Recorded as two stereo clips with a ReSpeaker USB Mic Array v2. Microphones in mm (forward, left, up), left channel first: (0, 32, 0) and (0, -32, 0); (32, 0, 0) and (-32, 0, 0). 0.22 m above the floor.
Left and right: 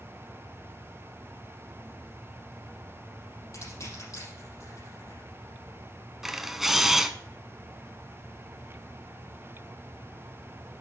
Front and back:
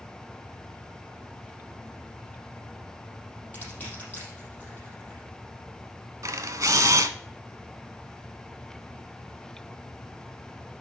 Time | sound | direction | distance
3.5 | crushing | 65° left | 6 m
6.2 | a camera shutter | 175° right | 0.7 m